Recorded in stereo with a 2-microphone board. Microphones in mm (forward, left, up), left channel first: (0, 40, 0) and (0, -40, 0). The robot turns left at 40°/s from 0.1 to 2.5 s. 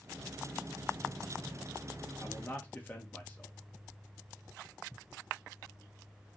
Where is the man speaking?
25° left (ahead or behind), 1.0 m; by 3.5 s 20° left (ahead or behind), 1.0 m.